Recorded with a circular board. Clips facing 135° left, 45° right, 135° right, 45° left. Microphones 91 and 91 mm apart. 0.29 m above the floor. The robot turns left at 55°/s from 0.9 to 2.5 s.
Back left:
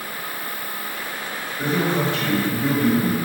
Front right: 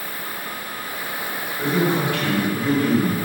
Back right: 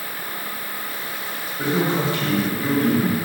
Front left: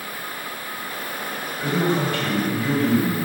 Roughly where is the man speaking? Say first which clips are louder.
Front right 1 dB, back right 1 dB; behind right.